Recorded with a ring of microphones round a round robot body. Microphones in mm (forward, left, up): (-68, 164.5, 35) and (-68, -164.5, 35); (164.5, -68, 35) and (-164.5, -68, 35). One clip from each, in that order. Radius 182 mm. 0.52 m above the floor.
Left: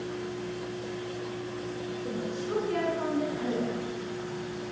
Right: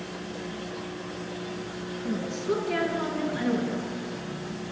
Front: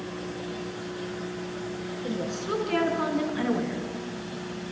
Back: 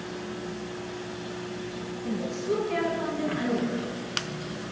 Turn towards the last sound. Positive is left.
turn(degrees=-5)